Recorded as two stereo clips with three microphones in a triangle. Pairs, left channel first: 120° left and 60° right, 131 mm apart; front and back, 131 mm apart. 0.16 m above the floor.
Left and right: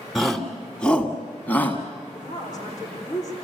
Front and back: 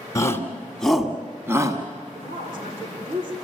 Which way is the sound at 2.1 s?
Straight behind.